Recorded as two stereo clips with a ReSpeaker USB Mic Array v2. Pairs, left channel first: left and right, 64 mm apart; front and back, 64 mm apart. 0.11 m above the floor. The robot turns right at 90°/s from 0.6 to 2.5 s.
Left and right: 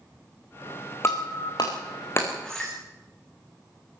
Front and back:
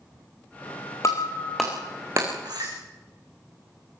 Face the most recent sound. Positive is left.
turn(degrees=170)